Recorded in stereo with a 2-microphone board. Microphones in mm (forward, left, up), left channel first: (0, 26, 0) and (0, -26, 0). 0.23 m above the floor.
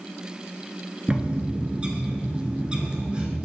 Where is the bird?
25° right (ahead or behind), 1.3 m.